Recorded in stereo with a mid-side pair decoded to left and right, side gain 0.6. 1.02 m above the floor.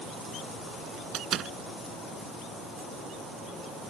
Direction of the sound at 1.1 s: 50° right.